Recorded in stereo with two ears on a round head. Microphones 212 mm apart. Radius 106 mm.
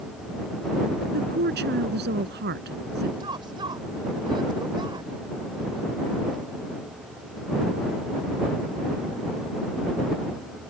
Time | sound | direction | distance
1.1 | a woman speaking | 45° right (ahead or behind) | ?
3.2 | a woman speaking | 20° right (ahead or behind) | ?